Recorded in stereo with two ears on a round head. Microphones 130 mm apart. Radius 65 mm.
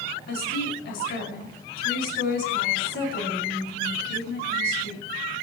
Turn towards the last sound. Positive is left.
turn(degrees=80)